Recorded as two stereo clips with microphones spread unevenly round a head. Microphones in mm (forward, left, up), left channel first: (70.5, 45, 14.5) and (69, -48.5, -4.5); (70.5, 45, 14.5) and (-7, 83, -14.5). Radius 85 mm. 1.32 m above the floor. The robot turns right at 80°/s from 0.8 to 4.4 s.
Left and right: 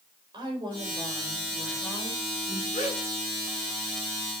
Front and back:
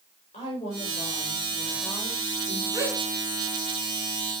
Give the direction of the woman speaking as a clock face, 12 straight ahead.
2 o'clock.